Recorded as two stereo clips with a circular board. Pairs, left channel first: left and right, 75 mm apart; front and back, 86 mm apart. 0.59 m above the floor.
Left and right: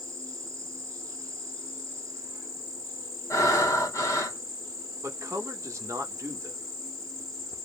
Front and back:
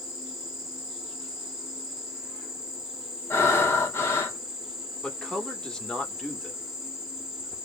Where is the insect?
95° right, 1.0 m.